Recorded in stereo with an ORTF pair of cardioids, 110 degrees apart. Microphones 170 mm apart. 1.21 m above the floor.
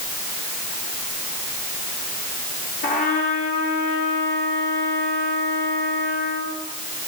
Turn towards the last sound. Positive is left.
turn(degrees=50)